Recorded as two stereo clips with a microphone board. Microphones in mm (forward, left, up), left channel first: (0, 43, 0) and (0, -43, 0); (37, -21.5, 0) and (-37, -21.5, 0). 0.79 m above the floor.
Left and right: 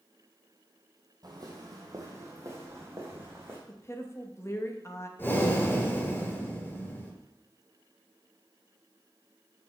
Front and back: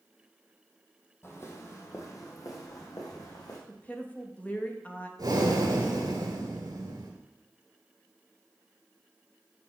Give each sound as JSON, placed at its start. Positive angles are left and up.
{"t": 1.2, "sound": "footsteps", "azimuth_deg": -55, "distance_m": 2.0}
{"t": 3.7, "sound": "a woman speaking", "azimuth_deg": 55, "distance_m": 0.9}
{"t": 5.2, "sound": "breathing", "azimuth_deg": 155, "distance_m": 1.8}